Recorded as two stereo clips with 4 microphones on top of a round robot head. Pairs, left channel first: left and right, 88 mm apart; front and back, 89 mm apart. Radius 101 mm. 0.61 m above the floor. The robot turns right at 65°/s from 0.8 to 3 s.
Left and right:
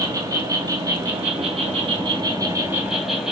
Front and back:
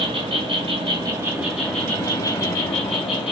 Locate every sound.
0.0 s an insect: 145° right, 3 m; by 3.3 s 5° right, 3 m